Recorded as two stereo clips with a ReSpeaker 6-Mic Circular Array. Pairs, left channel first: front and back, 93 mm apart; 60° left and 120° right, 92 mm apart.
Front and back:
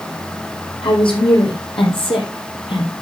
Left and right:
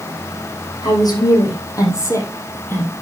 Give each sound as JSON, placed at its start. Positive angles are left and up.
{"t": 0.8, "sound": "a woman speaking", "azimuth_deg": 15, "distance_m": 4.0}